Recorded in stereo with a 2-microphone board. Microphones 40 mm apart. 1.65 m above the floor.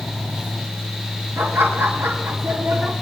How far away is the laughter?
About 3 m.